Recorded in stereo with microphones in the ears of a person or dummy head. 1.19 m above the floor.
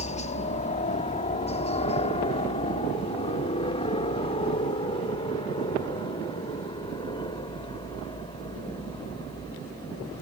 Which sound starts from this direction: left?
A helicopter, at 0.0 s.